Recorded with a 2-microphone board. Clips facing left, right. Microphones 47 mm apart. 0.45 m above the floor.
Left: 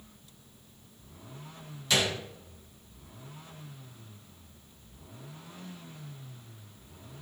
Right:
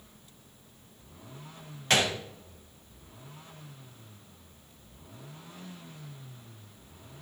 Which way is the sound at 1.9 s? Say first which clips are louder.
Right 2 dB; 50° right (ahead or behind).